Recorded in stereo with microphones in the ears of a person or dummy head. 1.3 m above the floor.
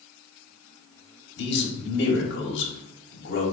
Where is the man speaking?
65° left (ahead or behind), 1.5 m.